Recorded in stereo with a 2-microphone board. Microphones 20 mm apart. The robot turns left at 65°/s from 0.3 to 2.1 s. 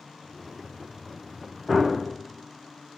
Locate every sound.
1.7 s a gunshot: 15° right (ahead or behind), 1.7 m; by 1.9 s 25° right (ahead or behind), 1.7 m